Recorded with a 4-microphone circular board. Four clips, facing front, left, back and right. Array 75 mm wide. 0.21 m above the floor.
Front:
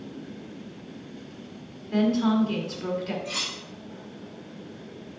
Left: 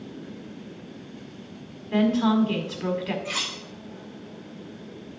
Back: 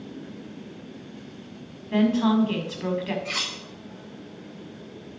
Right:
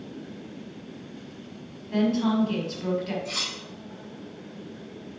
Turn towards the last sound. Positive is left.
turn(degrees=155)